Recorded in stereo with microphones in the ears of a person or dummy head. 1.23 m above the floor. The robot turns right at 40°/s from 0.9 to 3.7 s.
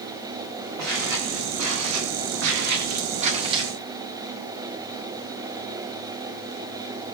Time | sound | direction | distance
0.8 | footsteps | 55° right (ahead or behind) | 8.5 m